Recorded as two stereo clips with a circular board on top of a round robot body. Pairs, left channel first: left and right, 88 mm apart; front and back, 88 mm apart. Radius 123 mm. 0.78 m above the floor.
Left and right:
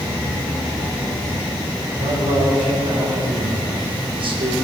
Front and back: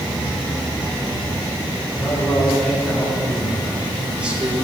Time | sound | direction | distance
2.0 | a man speaking | 75° right | 5 m